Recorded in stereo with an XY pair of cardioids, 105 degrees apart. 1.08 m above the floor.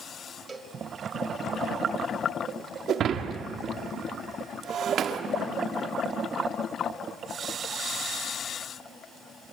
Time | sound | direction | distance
0.5 | a cowbell | 25° right | 2.5 m
2.9 | breaking glass | 65° right | 1.6 m